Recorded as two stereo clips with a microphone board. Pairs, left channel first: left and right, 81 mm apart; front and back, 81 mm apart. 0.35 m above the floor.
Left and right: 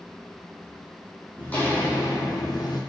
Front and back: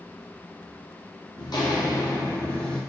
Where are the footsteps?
15° left, 0.8 m; by 2.8 s 80° left, 0.7 m.